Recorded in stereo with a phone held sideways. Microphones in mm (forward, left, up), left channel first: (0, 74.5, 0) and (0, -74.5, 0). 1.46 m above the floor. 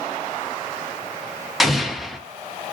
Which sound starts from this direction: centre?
An explosion, at 1.6 s.